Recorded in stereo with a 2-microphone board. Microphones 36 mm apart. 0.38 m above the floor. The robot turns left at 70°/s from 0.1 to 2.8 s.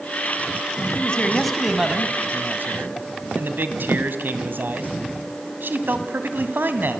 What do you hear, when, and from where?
0.9 s a man speaking: 45° left, 2.5 m; by 7.0 s 85° right, 2.5 m